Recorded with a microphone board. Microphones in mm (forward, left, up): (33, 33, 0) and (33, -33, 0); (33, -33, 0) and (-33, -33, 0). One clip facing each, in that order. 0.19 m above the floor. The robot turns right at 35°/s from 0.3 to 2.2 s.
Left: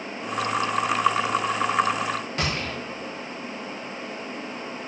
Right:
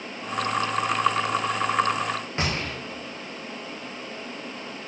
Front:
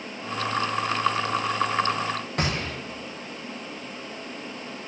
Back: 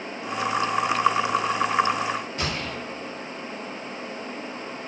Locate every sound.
2.4 s a gunshot: 25° right, 7 m